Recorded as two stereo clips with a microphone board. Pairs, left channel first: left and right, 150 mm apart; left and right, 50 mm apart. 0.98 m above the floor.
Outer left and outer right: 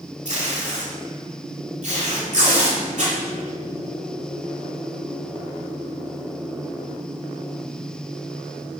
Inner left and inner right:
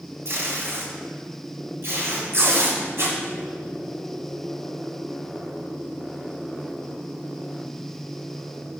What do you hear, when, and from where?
0.2 s tape being pulled: 65° right (ahead or behind), 7 m